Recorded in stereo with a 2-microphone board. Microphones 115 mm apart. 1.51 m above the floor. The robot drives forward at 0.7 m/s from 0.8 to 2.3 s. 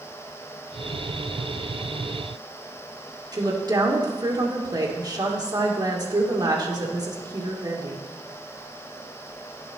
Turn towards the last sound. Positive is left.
turn(degrees=-35)  # may be behind; listen again after turning